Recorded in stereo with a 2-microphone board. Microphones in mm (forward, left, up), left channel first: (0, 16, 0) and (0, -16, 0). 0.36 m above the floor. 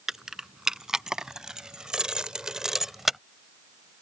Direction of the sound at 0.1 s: 15° right (ahead or behind).